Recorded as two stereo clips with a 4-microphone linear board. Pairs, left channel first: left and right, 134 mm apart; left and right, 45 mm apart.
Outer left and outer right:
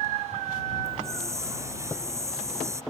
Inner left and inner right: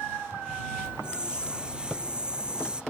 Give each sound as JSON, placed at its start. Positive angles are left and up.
{"t": 0.8, "sound": "a hiss", "side_deg": -20}